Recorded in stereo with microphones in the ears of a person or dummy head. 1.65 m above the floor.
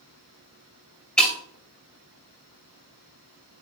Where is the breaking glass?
5° left (ahead or behind), 2.5 m.